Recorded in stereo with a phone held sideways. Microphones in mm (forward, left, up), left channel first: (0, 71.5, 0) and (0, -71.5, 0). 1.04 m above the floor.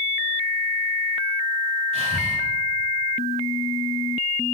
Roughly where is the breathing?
Right.